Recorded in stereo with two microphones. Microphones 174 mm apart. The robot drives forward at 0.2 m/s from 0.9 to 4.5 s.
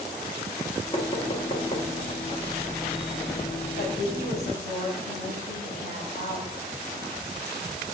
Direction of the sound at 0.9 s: 30° left (ahead or behind).